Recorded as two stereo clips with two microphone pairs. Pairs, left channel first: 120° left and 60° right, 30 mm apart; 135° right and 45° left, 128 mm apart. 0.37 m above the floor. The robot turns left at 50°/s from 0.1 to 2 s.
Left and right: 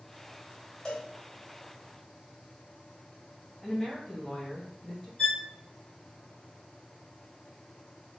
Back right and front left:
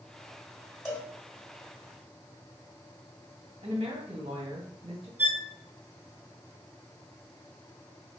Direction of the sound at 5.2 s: 95° left.